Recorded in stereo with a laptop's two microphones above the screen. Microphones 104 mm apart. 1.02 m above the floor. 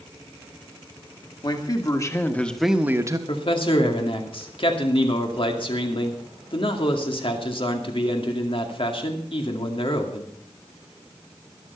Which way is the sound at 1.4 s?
40° left (ahead or behind).